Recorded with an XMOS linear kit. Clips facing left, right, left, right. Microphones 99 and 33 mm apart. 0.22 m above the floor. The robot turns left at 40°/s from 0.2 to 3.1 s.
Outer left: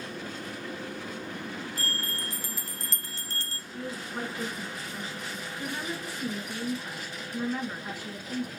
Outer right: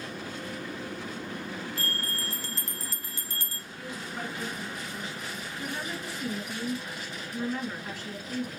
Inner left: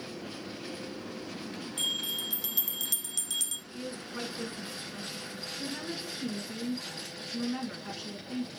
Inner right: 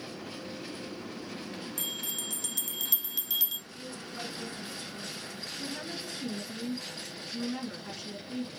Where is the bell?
40° left, 0.8 m; by 3.6 s 15° right, 0.8 m.